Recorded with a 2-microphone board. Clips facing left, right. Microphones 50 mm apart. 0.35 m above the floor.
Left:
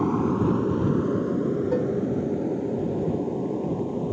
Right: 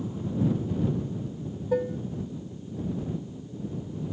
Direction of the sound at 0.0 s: 65° left (ahead or behind).